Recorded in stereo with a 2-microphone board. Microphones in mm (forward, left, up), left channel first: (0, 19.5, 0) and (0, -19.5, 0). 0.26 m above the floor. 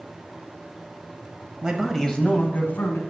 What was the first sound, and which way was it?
A man speaking, 25° right (ahead or behind).